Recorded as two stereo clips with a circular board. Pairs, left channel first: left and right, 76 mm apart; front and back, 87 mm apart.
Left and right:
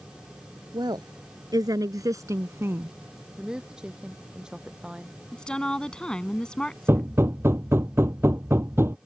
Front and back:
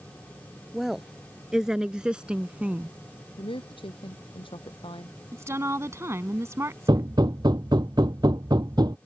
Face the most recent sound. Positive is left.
turn(degrees=-145)